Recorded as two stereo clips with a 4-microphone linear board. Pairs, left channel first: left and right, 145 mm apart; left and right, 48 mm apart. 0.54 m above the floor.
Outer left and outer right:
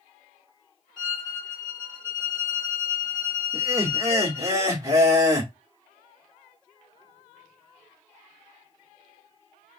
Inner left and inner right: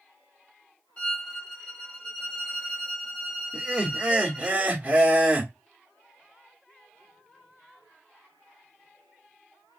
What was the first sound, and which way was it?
A violin, 30° left (ahead or behind).